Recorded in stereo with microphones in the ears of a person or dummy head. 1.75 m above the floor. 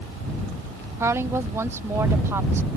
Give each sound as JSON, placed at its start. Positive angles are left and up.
{"t": 1.0, "sound": "a woman speaking", "side_deg": -15}